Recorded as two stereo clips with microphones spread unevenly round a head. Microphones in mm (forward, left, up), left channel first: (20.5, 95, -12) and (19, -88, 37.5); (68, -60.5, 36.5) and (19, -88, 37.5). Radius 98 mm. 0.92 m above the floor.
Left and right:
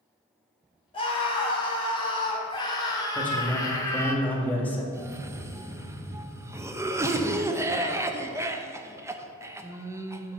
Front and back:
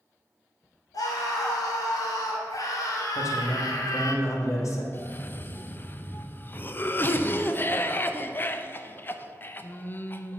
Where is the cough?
5° right, 0.9 m.